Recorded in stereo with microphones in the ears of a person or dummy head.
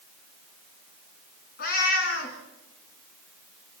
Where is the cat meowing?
65° left (ahead or behind), 2.5 m.